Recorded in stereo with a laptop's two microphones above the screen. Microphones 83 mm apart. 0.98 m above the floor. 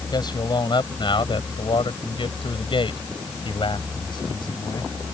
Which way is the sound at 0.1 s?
60° left (ahead or behind).